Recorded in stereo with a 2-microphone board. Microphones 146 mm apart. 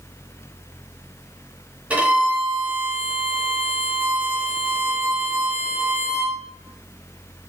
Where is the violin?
10° right (ahead or behind), 1.2 m.